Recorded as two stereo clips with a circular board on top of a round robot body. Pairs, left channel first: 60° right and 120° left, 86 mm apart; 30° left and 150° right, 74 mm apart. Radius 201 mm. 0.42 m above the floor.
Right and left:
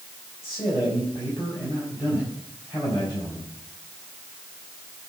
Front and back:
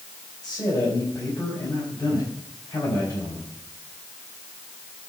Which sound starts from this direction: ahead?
A man speaking, at 0.4 s.